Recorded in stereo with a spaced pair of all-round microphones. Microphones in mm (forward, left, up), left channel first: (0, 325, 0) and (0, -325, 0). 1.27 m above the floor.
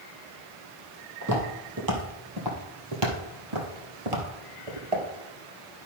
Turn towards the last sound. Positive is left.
turn(degrees=-55)  # may be behind; listen again after turning